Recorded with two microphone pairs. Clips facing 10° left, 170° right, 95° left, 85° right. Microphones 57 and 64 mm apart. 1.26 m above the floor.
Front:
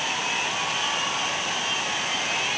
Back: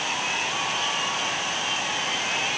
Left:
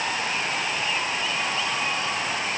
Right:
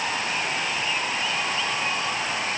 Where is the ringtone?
No ringtone in this recording.